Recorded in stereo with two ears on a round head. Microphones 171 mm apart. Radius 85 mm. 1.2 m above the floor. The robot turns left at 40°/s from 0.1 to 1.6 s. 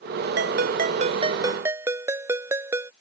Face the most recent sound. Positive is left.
turn(degrees=-165)